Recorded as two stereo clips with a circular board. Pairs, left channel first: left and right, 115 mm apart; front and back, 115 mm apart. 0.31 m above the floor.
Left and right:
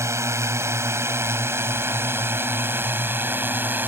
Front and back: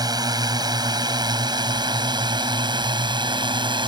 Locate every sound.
0.0 s a drone: 145° right; by 3.9 s 160° right